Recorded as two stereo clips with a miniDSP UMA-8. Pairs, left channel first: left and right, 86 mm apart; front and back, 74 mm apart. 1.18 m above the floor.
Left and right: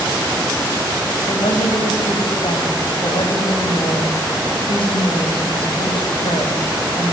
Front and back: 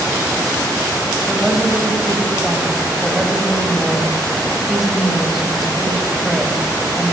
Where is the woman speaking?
90° left, 5 m.